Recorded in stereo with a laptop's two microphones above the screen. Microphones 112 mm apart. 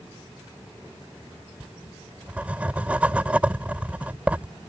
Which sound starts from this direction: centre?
Writing, at 1.6 s.